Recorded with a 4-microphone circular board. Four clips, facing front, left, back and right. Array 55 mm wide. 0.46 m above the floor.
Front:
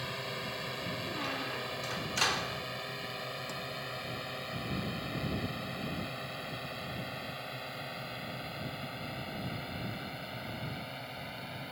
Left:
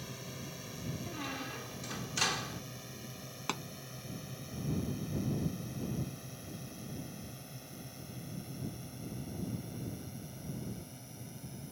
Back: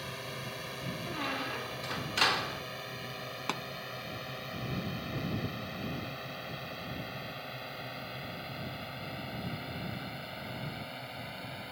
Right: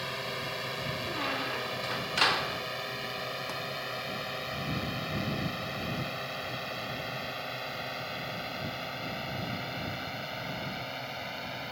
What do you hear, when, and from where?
0.0 s a drone: 75° right; by 11.7 s 90° right
1.1 s a squeak: 115° right
3.5 s a pop: 160° left